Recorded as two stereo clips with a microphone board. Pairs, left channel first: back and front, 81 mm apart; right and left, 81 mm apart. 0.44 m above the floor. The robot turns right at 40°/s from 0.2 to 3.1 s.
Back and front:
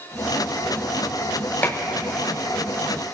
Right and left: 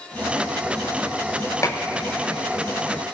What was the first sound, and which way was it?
Dishes clattering, 120° right.